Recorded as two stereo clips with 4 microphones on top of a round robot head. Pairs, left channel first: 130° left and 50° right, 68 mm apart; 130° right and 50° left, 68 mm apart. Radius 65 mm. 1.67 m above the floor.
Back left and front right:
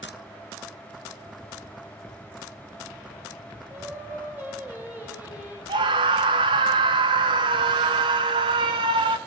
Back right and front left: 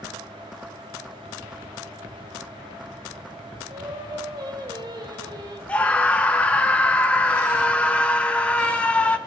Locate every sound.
3.7 s singing: 20° left, 4 m
5.7 s a scream: 55° right, 1.3 m